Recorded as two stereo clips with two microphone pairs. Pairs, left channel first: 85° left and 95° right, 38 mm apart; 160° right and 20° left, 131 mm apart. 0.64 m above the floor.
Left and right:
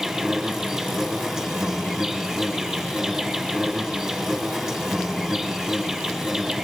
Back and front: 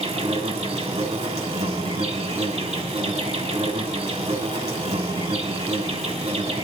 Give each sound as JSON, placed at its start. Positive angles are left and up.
{"t": 0.0, "sound": "an insect", "azimuth_deg": -15, "distance_m": 2.5}